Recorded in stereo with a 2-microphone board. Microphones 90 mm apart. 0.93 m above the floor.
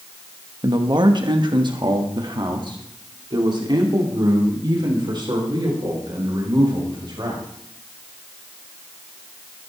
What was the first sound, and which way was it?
A man speaking, 50° right (ahead or behind).